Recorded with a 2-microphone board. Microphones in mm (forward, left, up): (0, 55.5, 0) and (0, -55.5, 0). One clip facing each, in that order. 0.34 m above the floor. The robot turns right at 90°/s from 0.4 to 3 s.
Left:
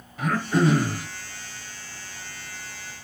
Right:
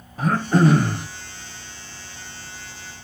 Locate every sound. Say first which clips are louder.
0.2 s throat clearing: right 4 dB; 135° right, 1.2 m; by 1.1 s 75° right, 1.2 m